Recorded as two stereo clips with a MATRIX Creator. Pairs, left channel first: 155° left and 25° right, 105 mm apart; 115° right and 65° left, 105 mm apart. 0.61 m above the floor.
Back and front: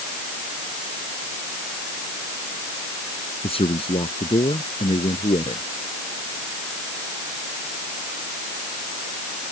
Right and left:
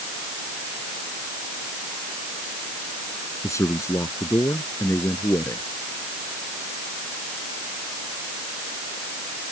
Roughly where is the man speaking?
Behind.